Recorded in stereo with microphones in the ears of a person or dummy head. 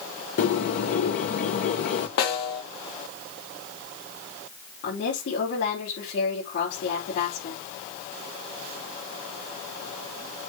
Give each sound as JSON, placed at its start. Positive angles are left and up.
{"t": 0.4, "sound": "a bird", "side_deg": 40, "distance_m": 0.9}
{"t": 2.2, "sound": "a snare drum", "side_deg": 60, "distance_m": 2.5}
{"t": 4.8, "sound": "a woman speaking", "side_deg": 55, "distance_m": 4.0}